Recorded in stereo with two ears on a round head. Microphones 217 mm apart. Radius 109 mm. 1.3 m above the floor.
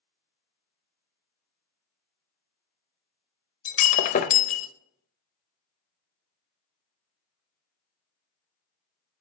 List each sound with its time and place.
3.6 s breaking glass: 35° left (ahead or behind), 0.6 m